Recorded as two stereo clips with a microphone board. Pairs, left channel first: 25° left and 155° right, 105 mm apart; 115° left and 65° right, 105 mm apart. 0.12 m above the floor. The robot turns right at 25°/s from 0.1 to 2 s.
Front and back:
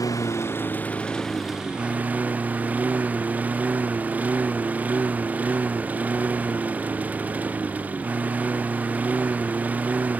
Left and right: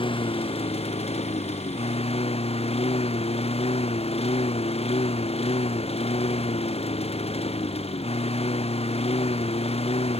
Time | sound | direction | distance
0.0 | a lawn mower | 80° left | ?